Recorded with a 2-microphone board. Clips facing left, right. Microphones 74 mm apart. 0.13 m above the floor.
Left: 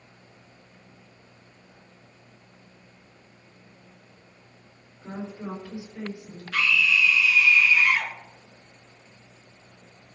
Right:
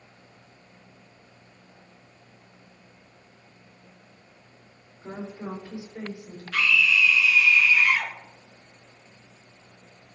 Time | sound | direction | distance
5.0 | a woman speaking | 20° right (ahead or behind) | 3 m
6.5 | a scream | 5° left (ahead or behind) | 1.3 m